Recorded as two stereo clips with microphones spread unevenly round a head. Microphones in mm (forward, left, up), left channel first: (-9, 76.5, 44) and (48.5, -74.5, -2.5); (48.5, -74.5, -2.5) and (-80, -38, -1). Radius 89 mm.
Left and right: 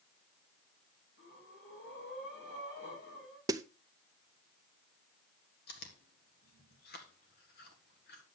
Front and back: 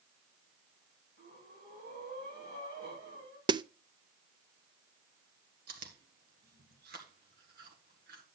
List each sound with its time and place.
1.2 s breathing: 140° left, 7 m
3.5 s a snare drum: 135° right, 0.5 m
5.7 s chewing: 150° left, 1.7 m